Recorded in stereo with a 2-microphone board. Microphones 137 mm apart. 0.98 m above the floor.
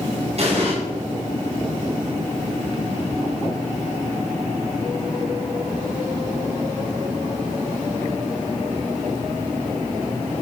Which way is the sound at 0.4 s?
50° right (ahead or behind).